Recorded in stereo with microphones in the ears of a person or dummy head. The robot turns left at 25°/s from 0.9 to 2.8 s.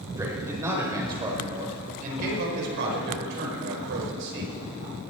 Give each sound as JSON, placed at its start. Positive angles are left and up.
{"t": 0.2, "sound": "a man speaking", "azimuth_deg": -20, "distance_m": 4.5}